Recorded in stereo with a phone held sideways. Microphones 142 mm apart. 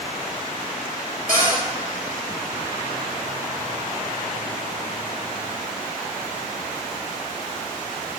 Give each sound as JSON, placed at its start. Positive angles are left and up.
{"t": 1.3, "sound": "a cupboard door", "side_deg": -65, "distance_m": 3.0}